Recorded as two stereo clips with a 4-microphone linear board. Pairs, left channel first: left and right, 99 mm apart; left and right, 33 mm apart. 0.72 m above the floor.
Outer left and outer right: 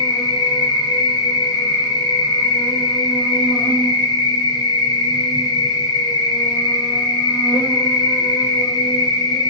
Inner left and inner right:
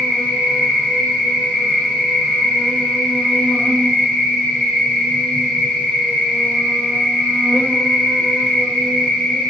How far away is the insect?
About 0.9 m.